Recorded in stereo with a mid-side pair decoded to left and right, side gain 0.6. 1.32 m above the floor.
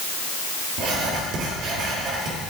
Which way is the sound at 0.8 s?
65° right.